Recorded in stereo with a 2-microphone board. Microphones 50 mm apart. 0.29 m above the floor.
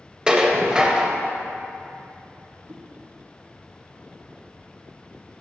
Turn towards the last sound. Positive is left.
turn(degrees=-70)  # may be behind; listen again after turning